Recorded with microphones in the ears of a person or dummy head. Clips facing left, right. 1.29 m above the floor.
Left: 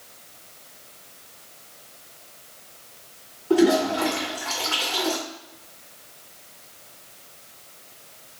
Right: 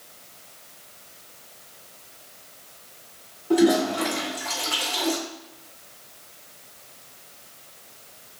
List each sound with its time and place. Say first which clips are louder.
3.5 s a toilet flushing: left 1 dB; 35° right (ahead or behind), 1.7 m